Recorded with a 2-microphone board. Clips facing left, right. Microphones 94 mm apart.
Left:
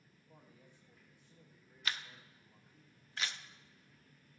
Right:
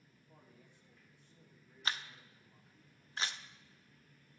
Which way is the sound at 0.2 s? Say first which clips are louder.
Left 1 dB; centre (ahead or behind).